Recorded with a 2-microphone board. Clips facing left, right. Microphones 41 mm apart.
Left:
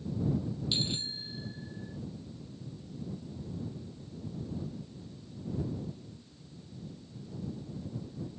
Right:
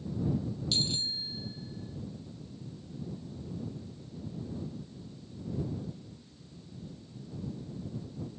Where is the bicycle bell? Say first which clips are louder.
Right 3 dB; 20° left (ahead or behind); by 2.0 s 40° left (ahead or behind).